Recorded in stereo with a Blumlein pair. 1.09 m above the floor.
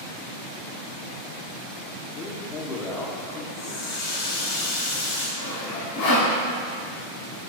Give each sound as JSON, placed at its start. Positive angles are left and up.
{"t": 2.1, "sound": "a man speaking", "azimuth_deg": 30, "distance_m": 1.0}
{"t": 3.5, "sound": "a running tap", "azimuth_deg": 50, "distance_m": 2.5}
{"t": 5.4, "sound": "sawing", "azimuth_deg": 55, "distance_m": 2.5}